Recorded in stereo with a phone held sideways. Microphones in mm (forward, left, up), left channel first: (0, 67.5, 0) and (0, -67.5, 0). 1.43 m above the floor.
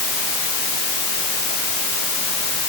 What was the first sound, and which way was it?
Only background noise.